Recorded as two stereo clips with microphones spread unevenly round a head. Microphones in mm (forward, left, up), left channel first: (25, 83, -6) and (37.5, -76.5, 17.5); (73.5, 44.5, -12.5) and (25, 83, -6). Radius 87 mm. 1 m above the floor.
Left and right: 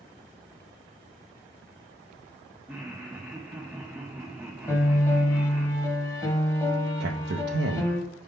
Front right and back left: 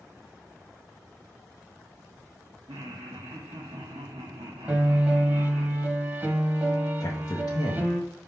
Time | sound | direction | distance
2.7 | laughter | 170° right | 0.6 m
4.7 | a piano | 170° left | 0.9 m
7.0 | a man speaking | 65° right | 0.6 m